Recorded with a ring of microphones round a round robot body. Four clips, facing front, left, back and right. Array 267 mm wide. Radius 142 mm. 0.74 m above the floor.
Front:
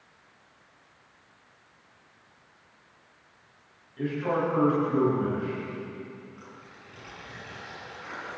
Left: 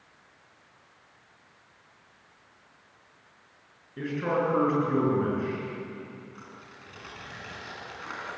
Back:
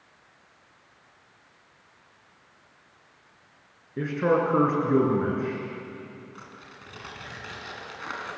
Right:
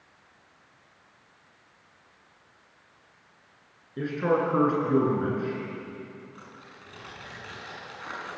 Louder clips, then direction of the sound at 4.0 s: Right 3 dB, back 4 dB; 160° right.